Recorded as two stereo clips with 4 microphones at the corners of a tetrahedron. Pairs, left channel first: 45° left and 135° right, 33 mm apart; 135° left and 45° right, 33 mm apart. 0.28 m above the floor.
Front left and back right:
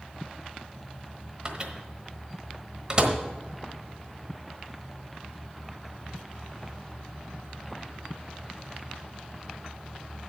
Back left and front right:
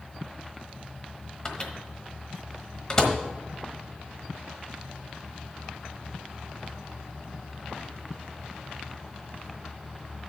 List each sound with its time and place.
1.4 s a microwave: 175° right, 1.2 m